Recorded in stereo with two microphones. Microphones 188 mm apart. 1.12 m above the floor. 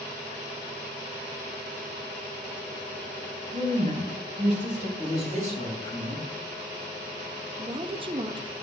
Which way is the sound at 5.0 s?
40° right (ahead or behind).